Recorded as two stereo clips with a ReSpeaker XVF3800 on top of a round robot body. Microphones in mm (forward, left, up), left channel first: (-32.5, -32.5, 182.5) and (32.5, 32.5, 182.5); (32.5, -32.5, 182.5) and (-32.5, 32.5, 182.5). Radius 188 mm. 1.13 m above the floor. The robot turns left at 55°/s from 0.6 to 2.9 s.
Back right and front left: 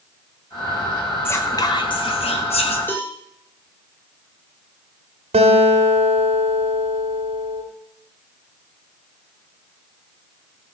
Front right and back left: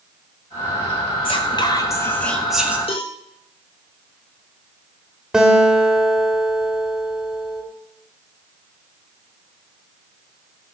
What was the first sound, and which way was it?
Whispering, 65° right.